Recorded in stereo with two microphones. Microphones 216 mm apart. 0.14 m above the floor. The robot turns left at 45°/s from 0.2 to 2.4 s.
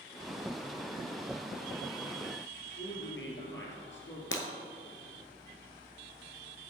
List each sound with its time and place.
2.8 s a man speaking: 60° left (ahead or behind), 2.5 m
4.3 s breaking glass: 65° left (ahead or behind), 1.1 m